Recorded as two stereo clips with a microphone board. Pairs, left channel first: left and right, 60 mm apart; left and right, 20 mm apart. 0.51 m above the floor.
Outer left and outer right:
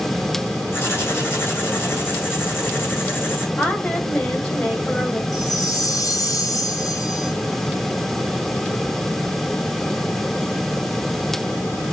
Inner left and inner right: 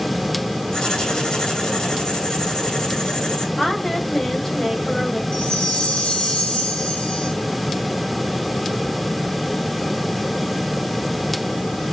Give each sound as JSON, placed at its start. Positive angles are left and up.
{"t": 0.7, "sound": "writing", "side_deg": 40, "distance_m": 3.0}
{"t": 3.6, "sound": "a woman speaking", "side_deg": 20, "distance_m": 2.5}
{"t": 5.3, "sound": "a chime", "side_deg": 85, "distance_m": 2.0}